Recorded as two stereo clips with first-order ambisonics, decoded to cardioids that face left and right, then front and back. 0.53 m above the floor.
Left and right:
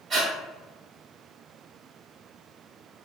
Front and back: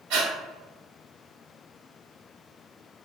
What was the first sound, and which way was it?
Breathing, 160° right.